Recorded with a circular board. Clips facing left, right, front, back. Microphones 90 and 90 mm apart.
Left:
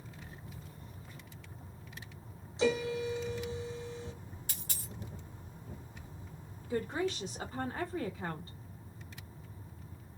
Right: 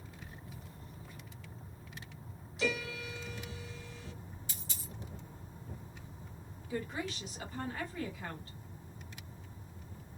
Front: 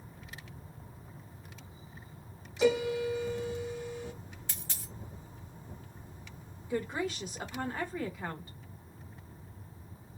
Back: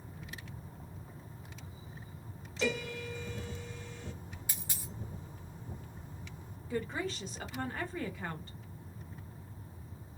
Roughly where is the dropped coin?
Left.